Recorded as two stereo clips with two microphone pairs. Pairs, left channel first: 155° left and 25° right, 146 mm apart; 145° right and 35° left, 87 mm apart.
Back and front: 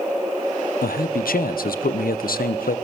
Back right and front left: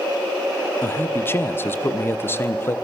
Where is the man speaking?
150° left, 0.9 m.